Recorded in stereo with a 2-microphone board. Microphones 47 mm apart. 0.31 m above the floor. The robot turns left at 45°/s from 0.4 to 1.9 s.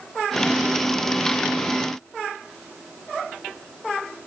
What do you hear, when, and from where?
Only background noise.